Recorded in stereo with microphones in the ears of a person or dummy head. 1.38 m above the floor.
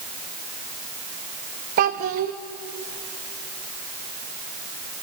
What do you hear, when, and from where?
1.8 s a child speaking: 35° right (ahead or behind), 0.9 m